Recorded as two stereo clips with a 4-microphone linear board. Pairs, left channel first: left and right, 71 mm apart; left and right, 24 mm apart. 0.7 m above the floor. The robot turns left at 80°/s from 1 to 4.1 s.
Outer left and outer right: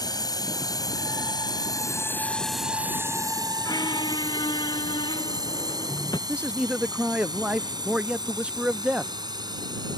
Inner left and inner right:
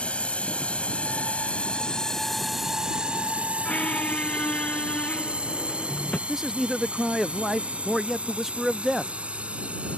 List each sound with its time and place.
0.0 s a drone: 70° left (ahead or behind); by 10.0 s 80° right
3.6 s a squeak: 115° left; by 6.2 s 80° left
6.3 s a man speaking: 15° right (ahead or behind)